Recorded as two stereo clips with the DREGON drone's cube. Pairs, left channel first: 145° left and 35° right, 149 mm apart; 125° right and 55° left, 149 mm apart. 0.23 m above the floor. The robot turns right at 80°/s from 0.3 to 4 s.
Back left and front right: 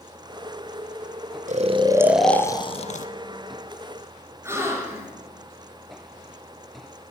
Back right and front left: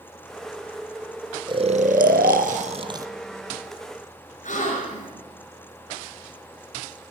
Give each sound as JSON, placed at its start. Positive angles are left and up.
{"t": 1.5, "sound": "snoring", "azimuth_deg": 0, "distance_m": 0.8}
{"t": 4.4, "sound": "a gasp", "azimuth_deg": -105, "distance_m": 3.0}